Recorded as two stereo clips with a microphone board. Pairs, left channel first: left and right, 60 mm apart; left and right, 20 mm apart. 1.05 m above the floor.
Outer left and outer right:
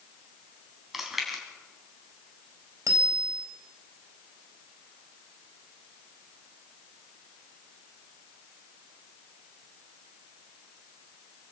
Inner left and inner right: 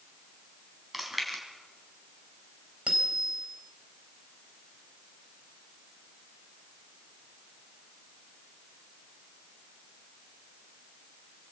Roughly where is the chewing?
Centre.